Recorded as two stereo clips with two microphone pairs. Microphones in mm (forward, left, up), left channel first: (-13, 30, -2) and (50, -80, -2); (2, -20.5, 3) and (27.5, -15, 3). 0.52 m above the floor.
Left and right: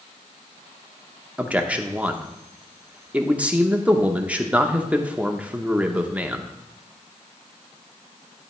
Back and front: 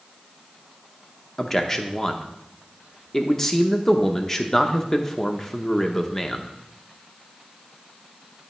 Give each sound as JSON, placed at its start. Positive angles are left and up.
{"t": 1.4, "sound": "a man speaking", "azimuth_deg": -110, "distance_m": 0.7}